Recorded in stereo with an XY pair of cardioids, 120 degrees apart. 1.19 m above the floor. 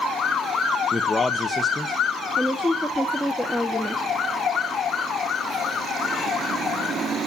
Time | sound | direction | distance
0.9 | a man speaking | 10° left | 1.2 m
2.4 | a woman speaking | 5° left | 1.7 m